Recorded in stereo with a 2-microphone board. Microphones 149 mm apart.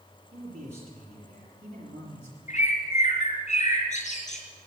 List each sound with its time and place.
0.3 s a man speaking: 45° right (ahead or behind), 6.5 m; by 2.4 s 50° right (ahead or behind), 5 m
2.5 s a bird: 55° left (ahead or behind), 3 m